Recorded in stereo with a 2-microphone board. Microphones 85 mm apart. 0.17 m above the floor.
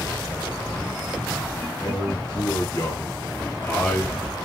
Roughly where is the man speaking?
Left.